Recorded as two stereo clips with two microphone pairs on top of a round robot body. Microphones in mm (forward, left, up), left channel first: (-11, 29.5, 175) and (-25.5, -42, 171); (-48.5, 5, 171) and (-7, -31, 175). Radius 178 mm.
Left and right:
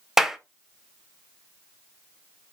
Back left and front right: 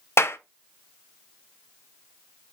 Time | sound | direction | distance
0.2 | a clap | 175° left | 0.8 m